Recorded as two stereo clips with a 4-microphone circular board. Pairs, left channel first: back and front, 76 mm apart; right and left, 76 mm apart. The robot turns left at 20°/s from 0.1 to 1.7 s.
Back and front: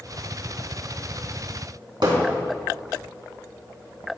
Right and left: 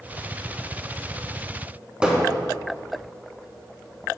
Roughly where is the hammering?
Ahead.